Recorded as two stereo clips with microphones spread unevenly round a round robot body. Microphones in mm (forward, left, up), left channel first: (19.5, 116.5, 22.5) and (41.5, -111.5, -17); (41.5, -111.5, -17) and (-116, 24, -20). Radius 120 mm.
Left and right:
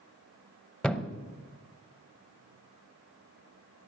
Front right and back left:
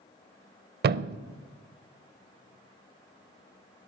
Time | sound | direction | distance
0.8 | a thud | straight behind | 0.6 m